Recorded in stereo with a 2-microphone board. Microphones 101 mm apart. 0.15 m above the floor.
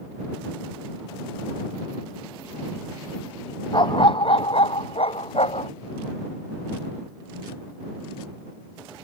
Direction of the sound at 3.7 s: 50° left (ahead or behind).